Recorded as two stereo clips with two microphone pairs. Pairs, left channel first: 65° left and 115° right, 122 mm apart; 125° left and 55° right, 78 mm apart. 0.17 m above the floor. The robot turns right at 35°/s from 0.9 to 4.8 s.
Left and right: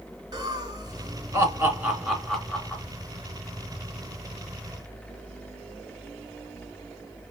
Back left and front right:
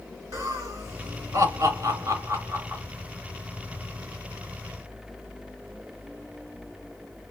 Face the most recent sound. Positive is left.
turn(degrees=60)